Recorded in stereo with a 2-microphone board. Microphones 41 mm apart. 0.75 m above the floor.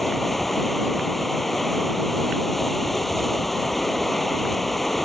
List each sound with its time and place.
0.0 s running water: 5° left (ahead or behind)